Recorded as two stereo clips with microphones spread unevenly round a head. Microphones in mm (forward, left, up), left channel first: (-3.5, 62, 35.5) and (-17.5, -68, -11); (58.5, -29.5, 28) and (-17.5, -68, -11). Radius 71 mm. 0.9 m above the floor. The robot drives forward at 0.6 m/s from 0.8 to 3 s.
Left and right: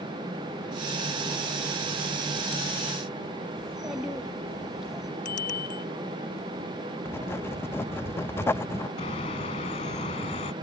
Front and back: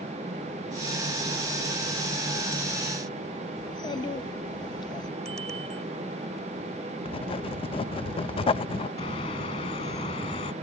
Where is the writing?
Straight ahead.